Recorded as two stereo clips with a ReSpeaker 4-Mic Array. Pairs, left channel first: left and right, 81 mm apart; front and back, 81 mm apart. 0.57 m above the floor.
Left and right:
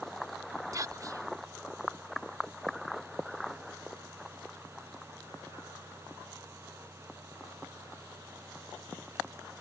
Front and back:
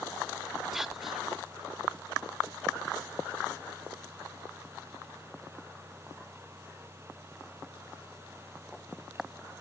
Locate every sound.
0.7 s whispering: 95° right